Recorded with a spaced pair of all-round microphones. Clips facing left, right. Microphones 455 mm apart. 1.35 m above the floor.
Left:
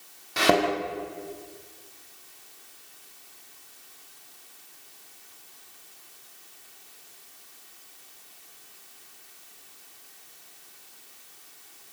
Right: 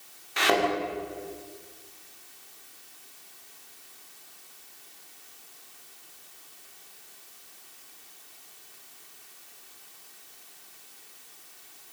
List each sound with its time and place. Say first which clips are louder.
0.4 s a thud: left 4 dB; 60° left (ahead or behind), 4.5 m